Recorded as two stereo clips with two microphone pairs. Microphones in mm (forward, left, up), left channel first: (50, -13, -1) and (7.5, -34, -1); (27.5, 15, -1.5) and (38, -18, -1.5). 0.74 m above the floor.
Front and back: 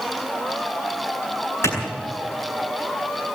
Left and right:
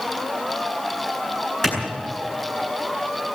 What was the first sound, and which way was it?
A clap, 25° left.